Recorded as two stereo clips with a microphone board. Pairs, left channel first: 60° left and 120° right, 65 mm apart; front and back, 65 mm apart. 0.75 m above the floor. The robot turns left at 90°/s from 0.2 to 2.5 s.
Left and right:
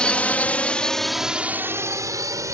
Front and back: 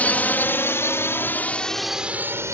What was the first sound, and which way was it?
A drone, 10° left.